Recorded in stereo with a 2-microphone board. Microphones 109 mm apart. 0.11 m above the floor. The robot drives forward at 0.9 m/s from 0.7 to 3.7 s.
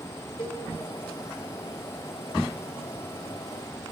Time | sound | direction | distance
0.4 | a cowbell | 45° left (ahead or behind) | 4 m